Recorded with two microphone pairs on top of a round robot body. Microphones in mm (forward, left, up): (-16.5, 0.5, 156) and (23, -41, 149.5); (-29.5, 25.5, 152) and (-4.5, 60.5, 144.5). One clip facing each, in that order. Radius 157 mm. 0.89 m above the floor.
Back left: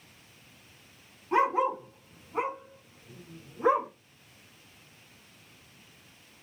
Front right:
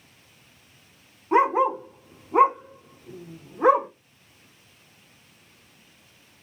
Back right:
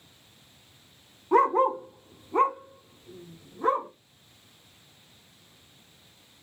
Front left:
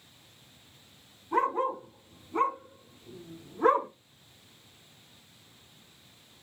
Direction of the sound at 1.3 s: 115° right.